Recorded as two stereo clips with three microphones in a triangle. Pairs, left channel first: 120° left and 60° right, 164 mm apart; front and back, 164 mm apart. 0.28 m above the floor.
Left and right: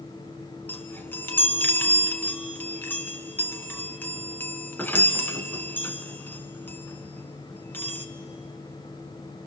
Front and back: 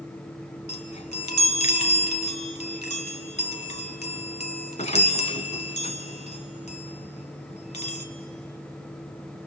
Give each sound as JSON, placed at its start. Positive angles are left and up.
{"t": 0.7, "sound": "a chime", "azimuth_deg": 45, "distance_m": 1.4}